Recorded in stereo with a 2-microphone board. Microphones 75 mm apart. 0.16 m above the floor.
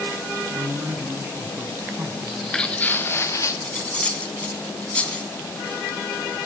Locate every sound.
0.5 s a man speaking: 30° right (ahead or behind), 1.5 m
2.2 s footsteps: 5° right (ahead or behind), 1.1 m; by 3.5 s 45° left (ahead or behind), 1.6 m
3.6 s cutlery clinking: 15° left (ahead or behind), 0.8 m